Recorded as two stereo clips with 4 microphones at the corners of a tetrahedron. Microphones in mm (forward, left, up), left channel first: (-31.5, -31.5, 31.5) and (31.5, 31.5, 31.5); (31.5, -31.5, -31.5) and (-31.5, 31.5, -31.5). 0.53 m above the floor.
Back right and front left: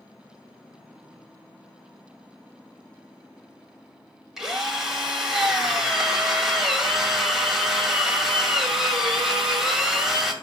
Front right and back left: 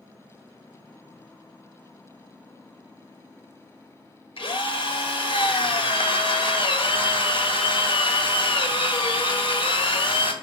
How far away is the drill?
About 2.0 m.